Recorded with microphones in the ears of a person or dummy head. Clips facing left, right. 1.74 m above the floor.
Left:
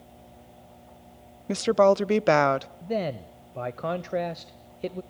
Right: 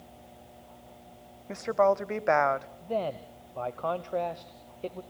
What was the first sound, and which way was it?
A woman speaking, 45° left (ahead or behind).